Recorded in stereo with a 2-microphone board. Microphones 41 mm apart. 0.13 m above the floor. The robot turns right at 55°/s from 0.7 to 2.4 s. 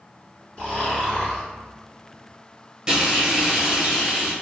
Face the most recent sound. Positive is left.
turn(degrees=-15)  # may be behind; listen again after turning